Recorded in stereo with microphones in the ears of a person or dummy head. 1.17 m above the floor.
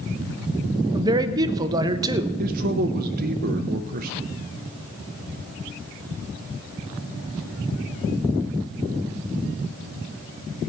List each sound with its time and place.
0.9 s a man speaking: 25° right (ahead or behind), 0.7 m
2.4 s a man speaking: 50° right (ahead or behind), 0.6 m